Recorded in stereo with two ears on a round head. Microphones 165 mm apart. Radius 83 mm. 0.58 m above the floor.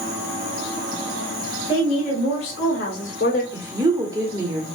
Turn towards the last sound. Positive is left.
turn(degrees=-15)  # may be behind; listen again after turning